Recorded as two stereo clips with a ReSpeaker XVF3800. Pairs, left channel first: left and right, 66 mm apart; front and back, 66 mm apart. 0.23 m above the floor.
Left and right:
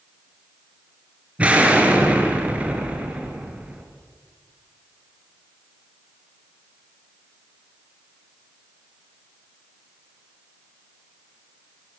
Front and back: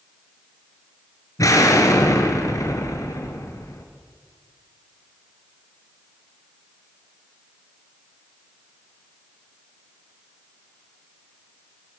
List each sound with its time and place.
1.4 s an explosion: 20° right, 4.5 m